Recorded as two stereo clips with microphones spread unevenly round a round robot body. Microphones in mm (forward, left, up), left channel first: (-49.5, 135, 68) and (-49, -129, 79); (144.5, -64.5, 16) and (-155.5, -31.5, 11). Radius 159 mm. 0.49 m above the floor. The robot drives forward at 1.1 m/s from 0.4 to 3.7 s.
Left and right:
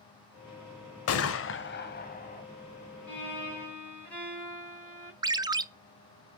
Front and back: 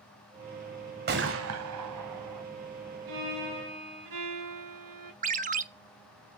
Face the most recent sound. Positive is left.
turn(degrees=-155)